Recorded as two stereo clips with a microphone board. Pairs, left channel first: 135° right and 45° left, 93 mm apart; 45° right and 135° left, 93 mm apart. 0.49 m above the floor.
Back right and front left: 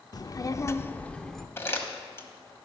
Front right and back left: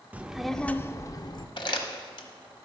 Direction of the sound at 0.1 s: 160° right.